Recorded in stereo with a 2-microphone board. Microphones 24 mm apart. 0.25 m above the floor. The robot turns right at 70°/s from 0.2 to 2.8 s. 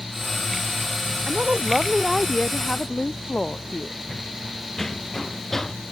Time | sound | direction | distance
1.3 | a woman speaking | 60° right | ?
4.1 | running footsteps | 15° left (ahead or behind) | ?